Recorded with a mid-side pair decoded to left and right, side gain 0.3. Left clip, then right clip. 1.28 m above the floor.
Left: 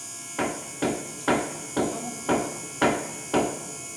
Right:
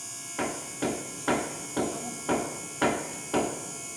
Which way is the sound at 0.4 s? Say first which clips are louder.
Left 4 dB; 25° left.